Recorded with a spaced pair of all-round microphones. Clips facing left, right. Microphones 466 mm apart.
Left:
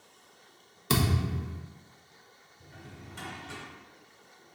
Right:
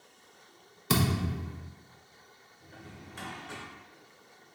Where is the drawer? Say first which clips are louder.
Even; 25° left (ahead or behind), 1.3 m.